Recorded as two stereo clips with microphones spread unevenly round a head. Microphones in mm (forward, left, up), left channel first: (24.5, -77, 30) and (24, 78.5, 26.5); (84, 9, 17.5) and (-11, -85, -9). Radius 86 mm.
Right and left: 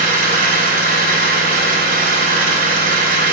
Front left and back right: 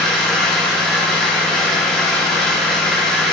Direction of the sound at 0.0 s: 125° left.